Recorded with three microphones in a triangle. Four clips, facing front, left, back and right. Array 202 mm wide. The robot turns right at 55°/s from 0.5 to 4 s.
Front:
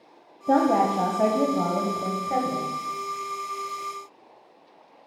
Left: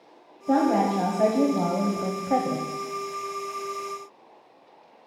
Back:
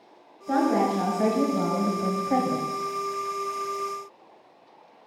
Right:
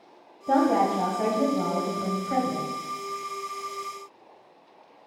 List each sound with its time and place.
0.5 s a woman speaking: 10° right, 1.2 m; by 2.7 s 110° left, 1.2 m